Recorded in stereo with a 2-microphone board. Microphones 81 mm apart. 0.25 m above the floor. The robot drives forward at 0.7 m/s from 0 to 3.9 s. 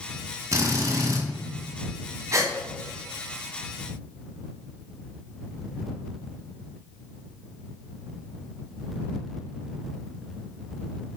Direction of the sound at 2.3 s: 40° right (ahead or behind).